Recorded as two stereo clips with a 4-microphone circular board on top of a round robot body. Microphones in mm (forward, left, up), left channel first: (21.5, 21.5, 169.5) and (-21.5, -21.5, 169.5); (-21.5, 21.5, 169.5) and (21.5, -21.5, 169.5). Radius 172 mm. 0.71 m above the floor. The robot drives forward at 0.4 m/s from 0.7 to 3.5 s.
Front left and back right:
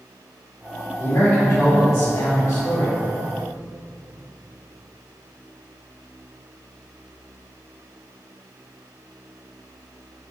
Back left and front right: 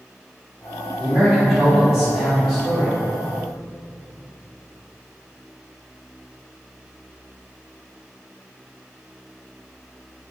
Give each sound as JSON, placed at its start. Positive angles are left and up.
{"t": 1.0, "sound": "a man speaking", "azimuth_deg": 30, "distance_m": 1.6}